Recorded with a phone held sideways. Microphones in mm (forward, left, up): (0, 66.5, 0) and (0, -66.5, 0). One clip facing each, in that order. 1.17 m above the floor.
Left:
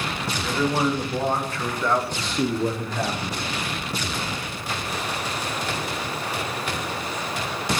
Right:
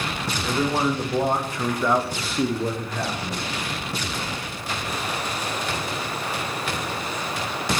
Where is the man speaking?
15° right (ahead or behind), 1.5 m; by 3.4 s 10° left (ahead or behind), 1.0 m.